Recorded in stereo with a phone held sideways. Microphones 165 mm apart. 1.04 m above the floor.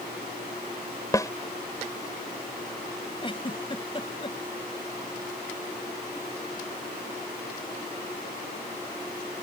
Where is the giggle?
30° left (ahead or behind).